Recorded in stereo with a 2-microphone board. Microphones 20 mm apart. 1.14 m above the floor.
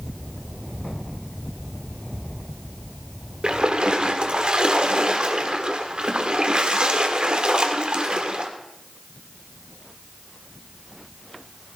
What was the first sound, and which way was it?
A splash, 55° right (ahead or behind).